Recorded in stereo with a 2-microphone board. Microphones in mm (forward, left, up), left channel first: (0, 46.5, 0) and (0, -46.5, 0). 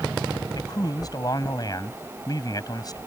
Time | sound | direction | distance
0.6 | a man speaking | 45° left (ahead or behind) | ?